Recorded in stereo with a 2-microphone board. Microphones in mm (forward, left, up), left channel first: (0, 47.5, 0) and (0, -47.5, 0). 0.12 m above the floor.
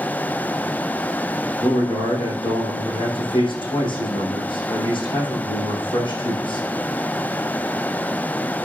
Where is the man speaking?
60° left (ahead or behind), 5.5 m.